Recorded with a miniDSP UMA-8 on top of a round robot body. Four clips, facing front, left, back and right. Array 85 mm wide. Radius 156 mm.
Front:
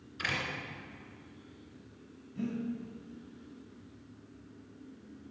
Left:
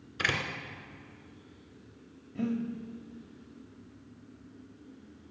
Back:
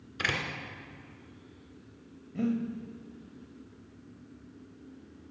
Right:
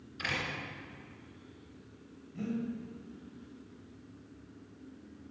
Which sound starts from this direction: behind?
Breathing, at 2.4 s.